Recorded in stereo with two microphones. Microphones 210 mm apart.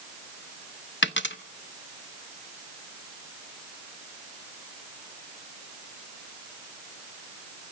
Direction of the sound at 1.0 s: 60° left (ahead or behind).